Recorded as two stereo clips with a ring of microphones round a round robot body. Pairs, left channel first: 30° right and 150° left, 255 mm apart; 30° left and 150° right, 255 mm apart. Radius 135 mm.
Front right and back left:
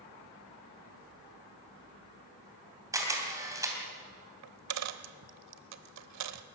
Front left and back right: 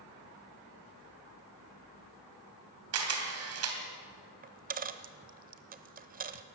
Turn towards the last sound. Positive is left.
turn(degrees=155)